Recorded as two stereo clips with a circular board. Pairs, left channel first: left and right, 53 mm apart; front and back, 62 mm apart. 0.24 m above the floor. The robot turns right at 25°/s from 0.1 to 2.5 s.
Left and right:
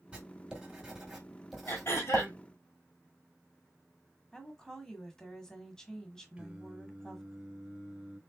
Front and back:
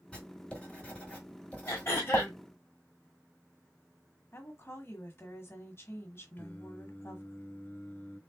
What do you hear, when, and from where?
0.1 s writing: 45° right, 1.6 m; by 2.3 s 10° left, 1.6 m
1.7 s throat clearing: 45° left, 3 m; by 2.4 s 65° left, 3 m
4.3 s a woman speaking: 15° left, 1.3 m
6.4 s singing: 25° right, 1.7 m